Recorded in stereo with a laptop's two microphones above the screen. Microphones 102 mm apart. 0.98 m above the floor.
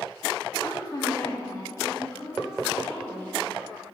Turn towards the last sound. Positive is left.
turn(degrees=25)  # may be behind; listen again after turning